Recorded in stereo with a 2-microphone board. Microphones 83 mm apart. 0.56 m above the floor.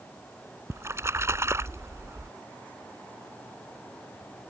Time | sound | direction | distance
0.7 | a splash | 35° right (ahead or behind) | ?